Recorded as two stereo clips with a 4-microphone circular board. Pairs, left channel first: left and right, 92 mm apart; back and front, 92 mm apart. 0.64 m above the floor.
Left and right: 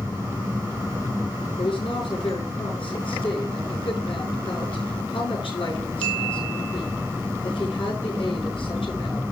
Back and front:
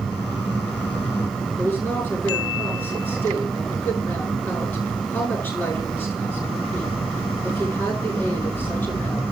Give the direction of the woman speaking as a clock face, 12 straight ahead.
8 o'clock.